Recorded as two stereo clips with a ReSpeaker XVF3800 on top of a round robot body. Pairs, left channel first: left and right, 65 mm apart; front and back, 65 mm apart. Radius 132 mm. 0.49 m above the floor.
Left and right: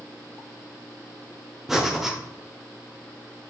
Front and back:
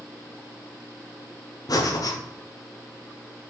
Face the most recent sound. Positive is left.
turn(degrees=-5)